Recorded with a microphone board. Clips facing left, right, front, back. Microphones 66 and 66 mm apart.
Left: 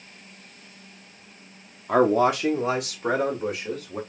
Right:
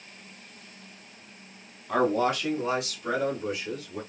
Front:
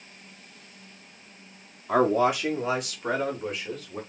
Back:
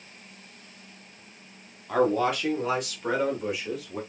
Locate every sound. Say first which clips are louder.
1.9 s a man speaking: left 5 dB, front 2 dB; 60° left, 0.5 m; by 4.0 s 100° left, 1.6 m